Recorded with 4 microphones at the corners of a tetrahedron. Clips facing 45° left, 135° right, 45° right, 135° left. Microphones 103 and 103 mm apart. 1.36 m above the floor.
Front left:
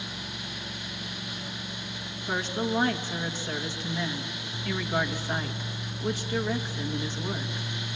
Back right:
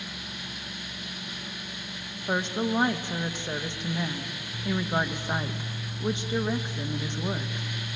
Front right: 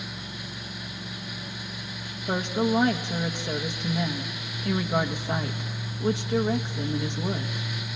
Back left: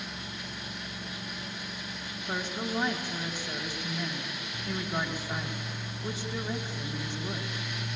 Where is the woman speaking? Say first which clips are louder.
Back right 2 dB, front right 9 dB; 65° right, 1.3 m.